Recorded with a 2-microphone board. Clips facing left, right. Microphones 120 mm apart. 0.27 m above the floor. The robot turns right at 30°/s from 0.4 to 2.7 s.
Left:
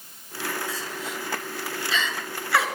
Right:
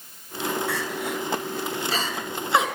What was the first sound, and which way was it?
Crying, 65° right (ahead or behind).